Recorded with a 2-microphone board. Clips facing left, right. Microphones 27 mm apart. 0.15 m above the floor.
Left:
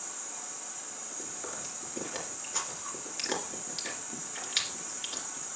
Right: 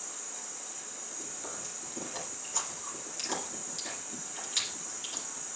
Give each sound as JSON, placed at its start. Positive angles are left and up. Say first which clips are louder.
{"t": 0.0, "sound": "an insect", "louder": "left 1 dB", "side_deg": 15, "distance_m": 5.5}
{"t": 1.2, "sound": "chewing", "louder": "left 2 dB", "side_deg": 25, "distance_m": 2.5}